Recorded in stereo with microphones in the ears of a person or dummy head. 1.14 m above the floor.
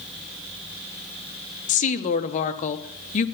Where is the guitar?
No guitar in this recording.